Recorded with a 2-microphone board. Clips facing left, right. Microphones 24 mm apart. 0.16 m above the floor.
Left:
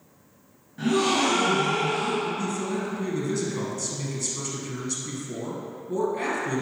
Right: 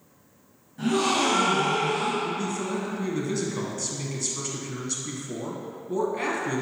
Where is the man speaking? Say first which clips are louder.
Even; 10° right (ahead or behind), 1.5 m.